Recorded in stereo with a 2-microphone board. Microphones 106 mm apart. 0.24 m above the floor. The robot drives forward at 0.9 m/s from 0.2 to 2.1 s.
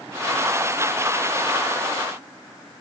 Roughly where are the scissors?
No scissors in this recording.